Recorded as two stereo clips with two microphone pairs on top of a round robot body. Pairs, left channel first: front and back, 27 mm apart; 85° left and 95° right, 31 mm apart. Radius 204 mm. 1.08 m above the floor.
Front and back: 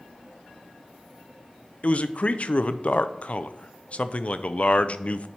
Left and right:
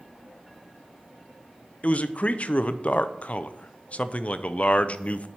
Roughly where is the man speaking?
Ahead left.